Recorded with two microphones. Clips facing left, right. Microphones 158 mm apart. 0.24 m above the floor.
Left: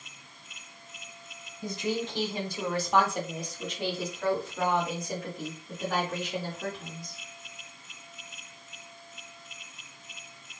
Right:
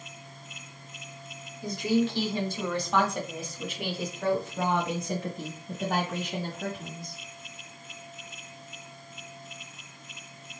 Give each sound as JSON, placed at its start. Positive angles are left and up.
{"t": 1.6, "sound": "a woman speaking", "side_deg": 25, "distance_m": 1.9}